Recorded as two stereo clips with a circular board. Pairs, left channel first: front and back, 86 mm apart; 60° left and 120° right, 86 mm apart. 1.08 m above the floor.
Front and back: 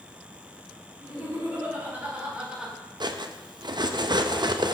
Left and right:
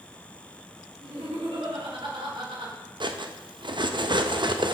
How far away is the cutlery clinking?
About 0.6 m.